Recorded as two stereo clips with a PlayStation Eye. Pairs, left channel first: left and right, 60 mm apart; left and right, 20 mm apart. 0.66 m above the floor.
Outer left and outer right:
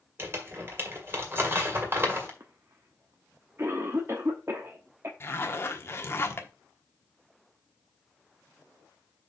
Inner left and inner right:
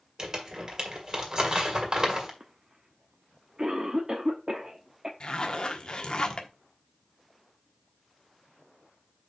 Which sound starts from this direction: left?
A zipper, at 5.2 s.